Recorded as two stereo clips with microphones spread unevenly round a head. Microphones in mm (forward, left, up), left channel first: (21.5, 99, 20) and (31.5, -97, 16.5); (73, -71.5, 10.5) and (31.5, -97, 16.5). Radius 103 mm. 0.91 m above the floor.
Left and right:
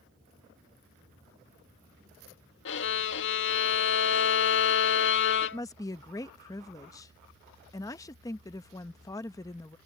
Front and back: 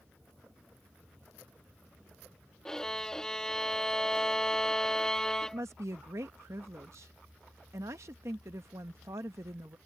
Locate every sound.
2.6 s a violin: 115° left
5.4 s a woman speaking: 165° left